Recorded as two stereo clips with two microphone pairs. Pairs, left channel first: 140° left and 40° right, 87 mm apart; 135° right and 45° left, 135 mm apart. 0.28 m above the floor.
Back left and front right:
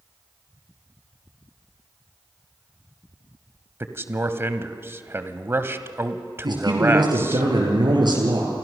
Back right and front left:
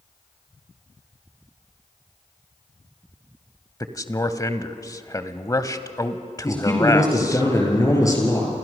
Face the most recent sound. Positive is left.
turn(degrees=-70)